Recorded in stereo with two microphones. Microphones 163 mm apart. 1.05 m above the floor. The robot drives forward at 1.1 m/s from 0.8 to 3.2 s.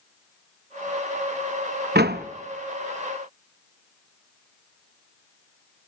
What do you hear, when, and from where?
1.9 s a door slam: 85° right, 0.8 m; by 2.3 s 70° right (ahead or behind), 0.9 m